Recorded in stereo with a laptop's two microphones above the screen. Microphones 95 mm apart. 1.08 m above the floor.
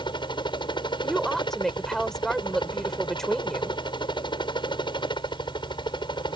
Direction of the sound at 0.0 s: 55° left (ahead or behind).